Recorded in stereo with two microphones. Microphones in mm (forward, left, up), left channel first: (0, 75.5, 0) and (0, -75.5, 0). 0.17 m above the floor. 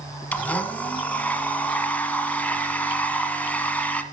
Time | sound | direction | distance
0.3 | a blender | 10° left (ahead or behind) | 1.1 m